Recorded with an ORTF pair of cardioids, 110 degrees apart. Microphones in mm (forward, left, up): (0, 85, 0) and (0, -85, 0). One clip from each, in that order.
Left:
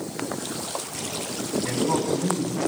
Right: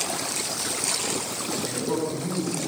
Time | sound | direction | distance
1.6 | a man speaking | 55° left | 8.5 m